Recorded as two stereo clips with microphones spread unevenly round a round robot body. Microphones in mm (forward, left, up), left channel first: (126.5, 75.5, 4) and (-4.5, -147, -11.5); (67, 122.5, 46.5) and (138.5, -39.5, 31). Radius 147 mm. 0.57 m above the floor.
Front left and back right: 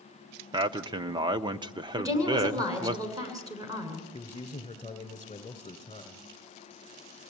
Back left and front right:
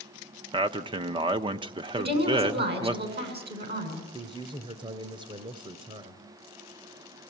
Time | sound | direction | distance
0.5 | a man speaking | 70° right | 0.9 m
2.0 | a woman speaking | 45° right | 7.5 m
4.1 | a man speaking | 10° right | 2.5 m